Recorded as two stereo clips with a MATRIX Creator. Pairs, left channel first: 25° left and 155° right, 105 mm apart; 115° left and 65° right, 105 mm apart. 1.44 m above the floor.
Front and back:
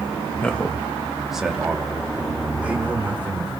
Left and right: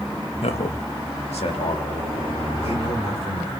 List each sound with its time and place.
0.4 s a man speaking: 100° left, 1.8 m; by 3.5 s 130° left, 5 m